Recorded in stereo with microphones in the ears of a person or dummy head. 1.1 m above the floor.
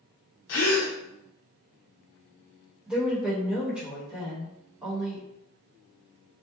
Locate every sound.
0.5 s a gasp: 50° left (ahead or behind), 0.6 m
2.9 s a woman speaking: 10° right (ahead or behind), 1.0 m